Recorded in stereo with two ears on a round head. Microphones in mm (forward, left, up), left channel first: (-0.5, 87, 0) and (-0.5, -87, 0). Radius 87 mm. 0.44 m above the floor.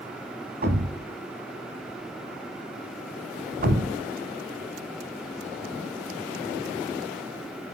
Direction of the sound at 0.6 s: 55° right (ahead or behind).